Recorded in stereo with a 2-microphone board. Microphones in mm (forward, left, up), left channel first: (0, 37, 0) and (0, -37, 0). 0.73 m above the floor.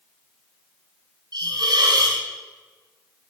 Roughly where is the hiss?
Right.